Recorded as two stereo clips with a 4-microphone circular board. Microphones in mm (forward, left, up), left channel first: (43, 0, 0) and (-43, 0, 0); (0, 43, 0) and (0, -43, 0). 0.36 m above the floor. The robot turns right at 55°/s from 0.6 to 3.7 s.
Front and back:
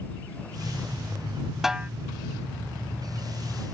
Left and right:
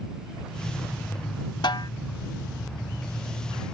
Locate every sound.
1.6 s a snare drum: 95° left; by 1.9 s 110° left